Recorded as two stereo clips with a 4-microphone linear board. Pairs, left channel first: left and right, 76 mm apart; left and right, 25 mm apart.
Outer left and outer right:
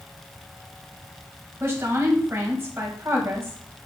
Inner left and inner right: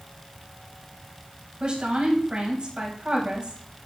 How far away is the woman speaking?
About 3 m.